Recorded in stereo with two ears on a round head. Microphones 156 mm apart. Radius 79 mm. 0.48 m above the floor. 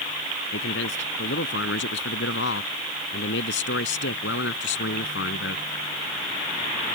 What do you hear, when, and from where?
0.5 s a man speaking: 80° left